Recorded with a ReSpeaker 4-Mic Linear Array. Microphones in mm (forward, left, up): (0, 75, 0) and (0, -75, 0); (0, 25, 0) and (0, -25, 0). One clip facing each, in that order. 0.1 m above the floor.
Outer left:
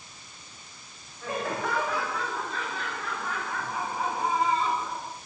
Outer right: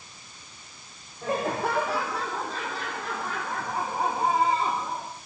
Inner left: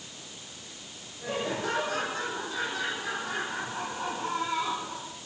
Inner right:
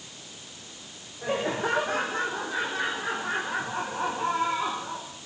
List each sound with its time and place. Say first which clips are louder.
1.2 s laughter: outer right 4 dB, inner right 4 dB; 35° right (ahead or behind), 5 m